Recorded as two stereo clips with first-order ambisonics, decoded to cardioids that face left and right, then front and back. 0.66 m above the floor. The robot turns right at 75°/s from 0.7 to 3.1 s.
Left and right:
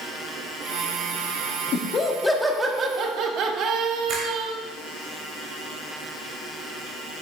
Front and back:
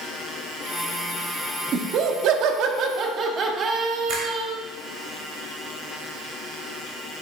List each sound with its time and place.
1.7 s laughter: 130° left, 1.0 m; by 4.5 s 125° right, 1.0 m
4.1 s a finger snap: 140° right, 2.5 m